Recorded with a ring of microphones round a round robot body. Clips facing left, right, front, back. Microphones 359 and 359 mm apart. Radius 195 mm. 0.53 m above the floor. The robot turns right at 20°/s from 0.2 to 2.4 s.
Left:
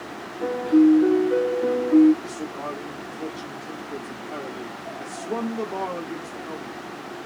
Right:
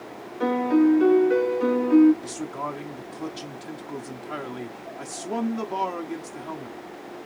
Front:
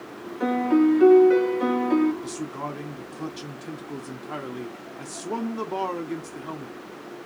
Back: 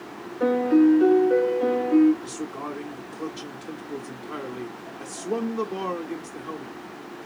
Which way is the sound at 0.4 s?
80° right.